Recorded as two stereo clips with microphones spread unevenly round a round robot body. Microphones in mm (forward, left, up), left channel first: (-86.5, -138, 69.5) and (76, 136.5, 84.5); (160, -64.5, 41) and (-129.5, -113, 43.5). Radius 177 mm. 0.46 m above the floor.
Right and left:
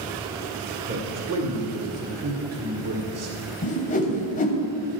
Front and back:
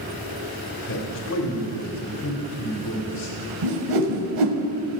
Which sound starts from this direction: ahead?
A man speaking, at 0.9 s.